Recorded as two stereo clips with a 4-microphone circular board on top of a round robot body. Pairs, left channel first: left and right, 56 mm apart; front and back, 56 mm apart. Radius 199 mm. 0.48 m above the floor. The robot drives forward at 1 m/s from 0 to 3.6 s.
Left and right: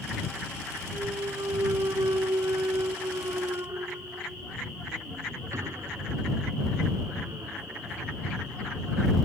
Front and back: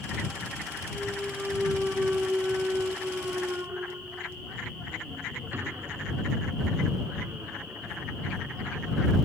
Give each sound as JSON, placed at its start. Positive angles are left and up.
{"t": 0.9, "sound": "a clunk", "azimuth_deg": -90}